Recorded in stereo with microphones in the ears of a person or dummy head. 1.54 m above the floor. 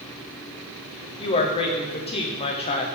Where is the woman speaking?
30° left (ahead or behind), 0.6 m.